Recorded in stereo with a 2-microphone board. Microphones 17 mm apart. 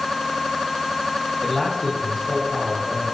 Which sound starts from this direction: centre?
A man speaking, at 1.4 s.